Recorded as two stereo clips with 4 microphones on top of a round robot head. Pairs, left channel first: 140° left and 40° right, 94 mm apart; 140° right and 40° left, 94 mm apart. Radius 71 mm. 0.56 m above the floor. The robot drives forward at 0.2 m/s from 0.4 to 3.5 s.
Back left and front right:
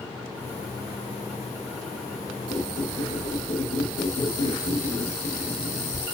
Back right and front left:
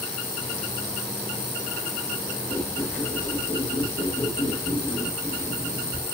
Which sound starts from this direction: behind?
A squeak, at 2.5 s.